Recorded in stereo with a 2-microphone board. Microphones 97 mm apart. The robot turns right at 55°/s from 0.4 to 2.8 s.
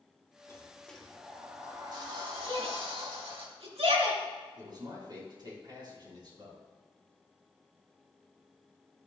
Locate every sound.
0.5 s a sliding door: 150° left, 2 m; by 3.5 s 85° right, 2 m
2.5 s a shout: 70° right (ahead or behind), 4 m; by 4.2 s 90° right, 4 m
4.6 s a man speaking: 45° right (ahead or behind), 4.5 m